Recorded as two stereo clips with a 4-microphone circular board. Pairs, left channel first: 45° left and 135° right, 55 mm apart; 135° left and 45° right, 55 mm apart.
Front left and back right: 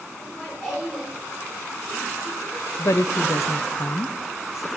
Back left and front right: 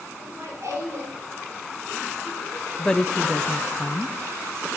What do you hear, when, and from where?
0.2 s laughter: 10° right, 5 m; by 3.8 s 30° right, 6.5 m
2.8 s a woman speaking: 55° left, 0.5 m